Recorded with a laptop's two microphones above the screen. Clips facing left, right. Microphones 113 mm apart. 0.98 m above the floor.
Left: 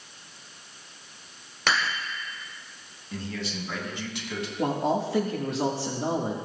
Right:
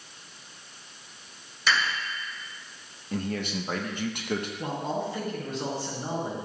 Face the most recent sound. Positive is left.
turn(degrees=85)